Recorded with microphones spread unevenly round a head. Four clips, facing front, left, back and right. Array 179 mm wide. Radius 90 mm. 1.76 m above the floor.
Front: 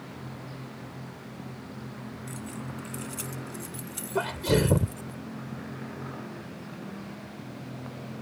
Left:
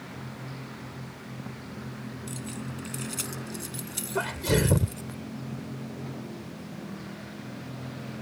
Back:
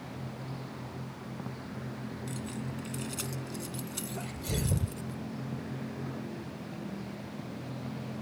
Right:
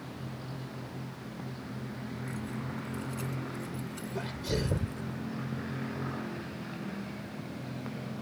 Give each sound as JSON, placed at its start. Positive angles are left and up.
{"t": 2.3, "sound": "keys jangling", "azimuth_deg": 115}
{"t": 4.2, "sound": "a sneeze", "azimuth_deg": 25}